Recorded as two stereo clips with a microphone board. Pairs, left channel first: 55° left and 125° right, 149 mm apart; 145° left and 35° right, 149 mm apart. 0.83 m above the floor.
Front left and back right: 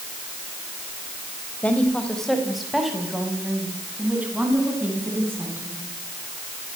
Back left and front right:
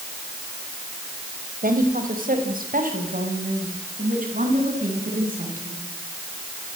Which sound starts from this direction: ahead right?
A woman speaking, at 1.6 s.